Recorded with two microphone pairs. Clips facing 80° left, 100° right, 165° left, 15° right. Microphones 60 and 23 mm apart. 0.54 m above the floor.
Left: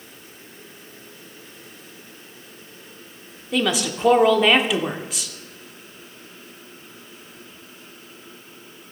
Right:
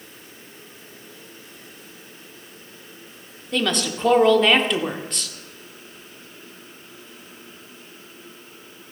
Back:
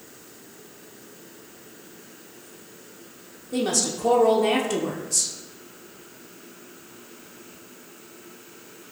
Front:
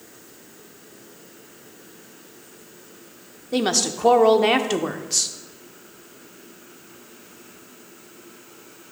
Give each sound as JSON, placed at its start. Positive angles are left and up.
{"t": 3.5, "sound": "a woman speaking", "azimuth_deg": 0, "distance_m": 0.8}